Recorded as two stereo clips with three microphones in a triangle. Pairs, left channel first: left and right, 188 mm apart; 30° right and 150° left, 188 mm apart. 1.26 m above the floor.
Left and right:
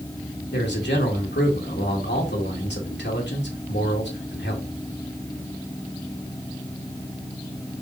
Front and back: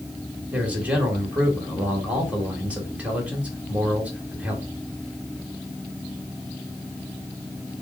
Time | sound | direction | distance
0.5 | a man speaking | 70° left | 2.0 m